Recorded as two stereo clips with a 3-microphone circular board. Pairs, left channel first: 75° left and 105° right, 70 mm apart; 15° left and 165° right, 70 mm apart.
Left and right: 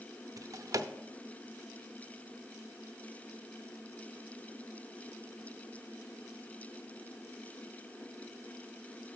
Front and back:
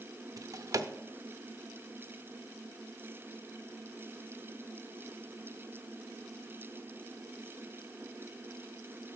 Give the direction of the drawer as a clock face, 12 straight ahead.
4 o'clock.